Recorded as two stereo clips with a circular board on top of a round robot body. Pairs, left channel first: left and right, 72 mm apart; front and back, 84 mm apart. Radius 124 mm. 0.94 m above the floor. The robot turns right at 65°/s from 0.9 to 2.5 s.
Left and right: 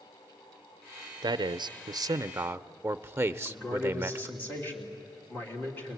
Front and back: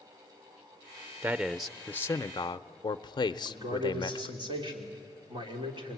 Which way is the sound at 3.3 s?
155° left.